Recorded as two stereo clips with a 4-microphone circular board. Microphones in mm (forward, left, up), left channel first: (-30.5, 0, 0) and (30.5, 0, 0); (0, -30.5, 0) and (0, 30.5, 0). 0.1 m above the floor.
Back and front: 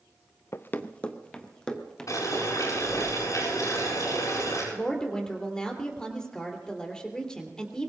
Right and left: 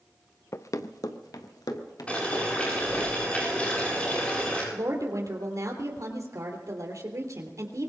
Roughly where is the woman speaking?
Left.